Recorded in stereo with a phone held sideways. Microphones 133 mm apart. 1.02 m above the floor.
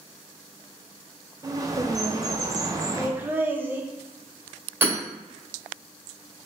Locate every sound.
1.4 s a bird: 25° right (ahead or behind), 0.6 m
3.0 s laughter: 15° right (ahead or behind), 0.8 m
4.8 s hammering: 15° right (ahead or behind), 2.5 m